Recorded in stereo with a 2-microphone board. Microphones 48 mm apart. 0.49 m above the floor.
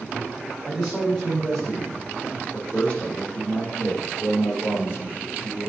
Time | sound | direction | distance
0.7 | a man speaking | 5° left (ahead or behind) | 2 m